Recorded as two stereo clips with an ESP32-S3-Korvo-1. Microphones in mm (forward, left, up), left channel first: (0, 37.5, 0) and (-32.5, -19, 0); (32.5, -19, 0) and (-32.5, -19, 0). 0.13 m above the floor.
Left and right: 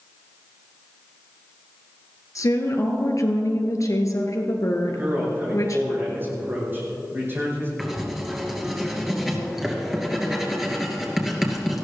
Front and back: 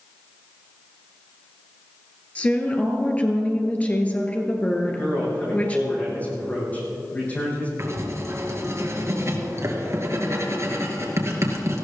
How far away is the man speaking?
About 6 m.